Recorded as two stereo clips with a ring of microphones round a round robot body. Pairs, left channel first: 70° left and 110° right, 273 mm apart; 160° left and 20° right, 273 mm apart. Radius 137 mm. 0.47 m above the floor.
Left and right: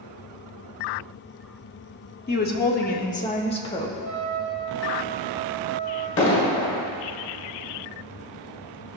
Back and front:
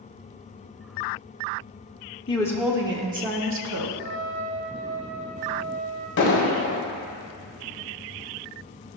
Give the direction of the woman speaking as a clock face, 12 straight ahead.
9 o'clock.